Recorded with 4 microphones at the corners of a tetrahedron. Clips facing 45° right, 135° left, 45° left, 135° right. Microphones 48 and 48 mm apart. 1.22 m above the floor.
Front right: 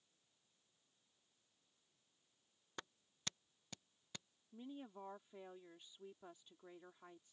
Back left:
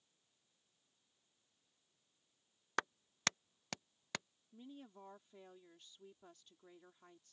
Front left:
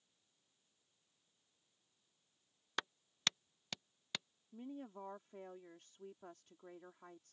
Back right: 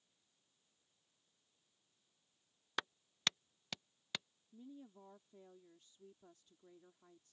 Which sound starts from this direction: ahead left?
A woman speaking, at 4.5 s.